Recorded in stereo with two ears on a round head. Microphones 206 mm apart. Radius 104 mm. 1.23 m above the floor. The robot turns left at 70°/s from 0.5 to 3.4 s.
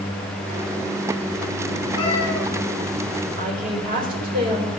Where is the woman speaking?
35° right (ahead or behind), 4 m; by 4.7 s 40° right (ahead or behind), 4 m.